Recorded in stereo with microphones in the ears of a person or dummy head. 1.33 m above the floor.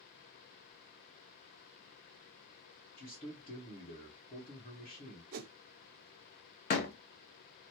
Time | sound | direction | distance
3.0 | a man speaking | 40° left (ahead or behind) | 1.4 m
5.3 | a whoosh | 50° right (ahead or behind) | 0.5 m
6.7 | a door slam | 35° left (ahead or behind) | 0.5 m